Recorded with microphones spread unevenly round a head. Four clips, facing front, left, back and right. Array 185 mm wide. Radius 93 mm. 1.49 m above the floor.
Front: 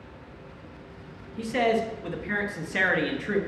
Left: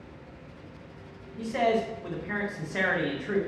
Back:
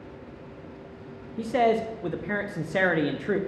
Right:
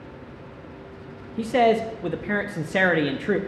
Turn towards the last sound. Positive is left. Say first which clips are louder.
# right 6 dB, back 2 dB
turn(degrees=-110)